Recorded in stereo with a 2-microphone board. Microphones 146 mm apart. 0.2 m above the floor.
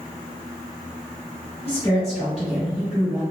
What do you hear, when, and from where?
1.6 s a woman speaking: 10° left (ahead or behind), 1.5 m; by 3.2 s 20° right (ahead or behind), 1.4 m